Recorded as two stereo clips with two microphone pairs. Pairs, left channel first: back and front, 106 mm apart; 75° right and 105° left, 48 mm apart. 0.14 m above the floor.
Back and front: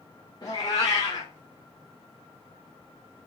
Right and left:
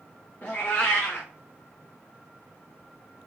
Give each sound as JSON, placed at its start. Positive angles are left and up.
{"t": 0.4, "sound": "a cat meowing", "azimuth_deg": -130, "distance_m": 1.2}